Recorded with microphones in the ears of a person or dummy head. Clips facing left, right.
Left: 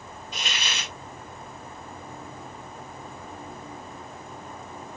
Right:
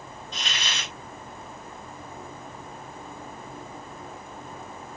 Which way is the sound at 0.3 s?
15° left (ahead or behind).